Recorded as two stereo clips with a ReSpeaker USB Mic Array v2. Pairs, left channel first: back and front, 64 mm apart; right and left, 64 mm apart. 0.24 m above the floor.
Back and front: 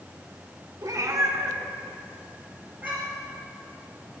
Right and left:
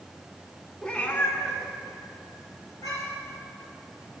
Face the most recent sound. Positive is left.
turn(degrees=-65)